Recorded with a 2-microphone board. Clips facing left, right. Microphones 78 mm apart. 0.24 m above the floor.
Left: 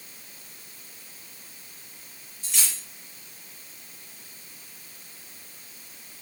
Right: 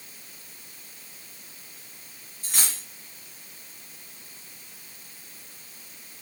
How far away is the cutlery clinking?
About 1.2 m.